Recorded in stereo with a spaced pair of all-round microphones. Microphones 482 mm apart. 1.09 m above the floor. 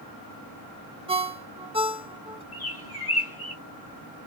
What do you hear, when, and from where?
1.1 s a ringtone: 10° right (ahead or behind), 0.6 m
2.5 s a bird: 45° left (ahead or behind), 1.2 m